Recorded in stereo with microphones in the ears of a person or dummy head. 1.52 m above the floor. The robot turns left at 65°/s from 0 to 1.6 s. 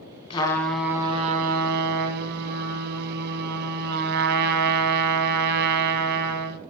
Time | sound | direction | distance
0.3 | a trumpet | 25° left | 1.0 m